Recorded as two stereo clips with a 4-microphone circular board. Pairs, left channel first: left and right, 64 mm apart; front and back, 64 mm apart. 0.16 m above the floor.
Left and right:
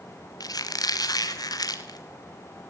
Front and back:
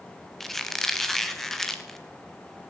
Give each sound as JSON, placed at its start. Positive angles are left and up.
{"t": 0.4, "sound": "a squeak", "azimuth_deg": 85, "distance_m": 2.5}